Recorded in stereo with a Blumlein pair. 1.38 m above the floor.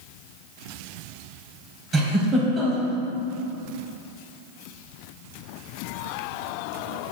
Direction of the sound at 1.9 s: 20° right.